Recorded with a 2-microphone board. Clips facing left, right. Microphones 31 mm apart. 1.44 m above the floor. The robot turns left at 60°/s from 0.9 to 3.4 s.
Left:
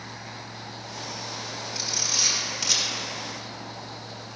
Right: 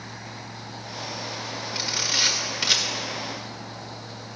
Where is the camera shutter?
40° right (ahead or behind), 1.4 m; by 4.4 s 5° right (ahead or behind), 1.4 m.